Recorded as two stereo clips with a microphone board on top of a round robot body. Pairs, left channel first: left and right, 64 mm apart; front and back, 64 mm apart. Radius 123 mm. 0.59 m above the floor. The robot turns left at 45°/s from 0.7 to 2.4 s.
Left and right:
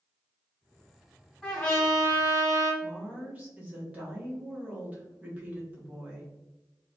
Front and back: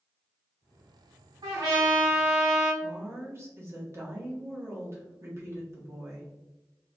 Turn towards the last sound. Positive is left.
turn(degrees=-150)